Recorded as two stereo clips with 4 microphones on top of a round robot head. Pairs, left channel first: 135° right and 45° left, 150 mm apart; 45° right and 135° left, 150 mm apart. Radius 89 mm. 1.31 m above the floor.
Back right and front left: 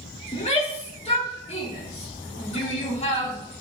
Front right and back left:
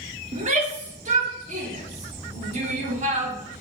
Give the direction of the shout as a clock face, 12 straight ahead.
6 o'clock.